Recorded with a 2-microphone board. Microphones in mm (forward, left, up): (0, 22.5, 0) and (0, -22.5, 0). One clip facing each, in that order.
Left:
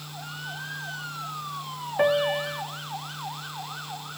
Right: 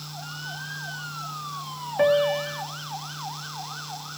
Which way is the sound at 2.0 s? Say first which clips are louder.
Right 2 dB; 5° left (ahead or behind).